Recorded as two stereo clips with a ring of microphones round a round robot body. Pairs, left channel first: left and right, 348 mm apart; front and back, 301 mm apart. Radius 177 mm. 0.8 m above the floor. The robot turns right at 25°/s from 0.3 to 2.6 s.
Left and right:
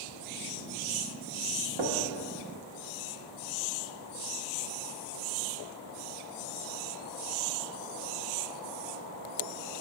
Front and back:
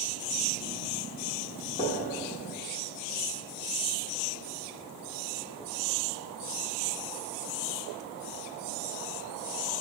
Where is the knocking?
75° right, 1.2 m; by 2.0 s 70° right, 1.2 m.